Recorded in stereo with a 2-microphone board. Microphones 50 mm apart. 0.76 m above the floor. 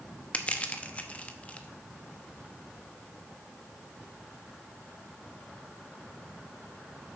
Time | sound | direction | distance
0.3 | crushing | 30° left (ahead or behind) | 0.7 m